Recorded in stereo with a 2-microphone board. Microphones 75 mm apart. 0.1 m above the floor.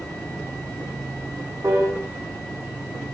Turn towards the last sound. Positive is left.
turn(degrees=-40)  # may be behind; listen again after turning